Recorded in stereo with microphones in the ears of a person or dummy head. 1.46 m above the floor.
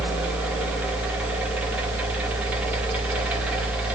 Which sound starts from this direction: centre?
A fan, at 0.0 s.